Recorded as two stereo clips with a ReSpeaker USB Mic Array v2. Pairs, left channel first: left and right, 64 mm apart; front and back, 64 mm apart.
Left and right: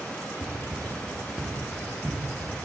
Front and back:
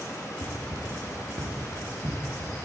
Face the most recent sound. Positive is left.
turn(degrees=-175)